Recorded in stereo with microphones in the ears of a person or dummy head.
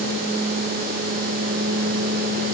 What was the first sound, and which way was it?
Only background noise.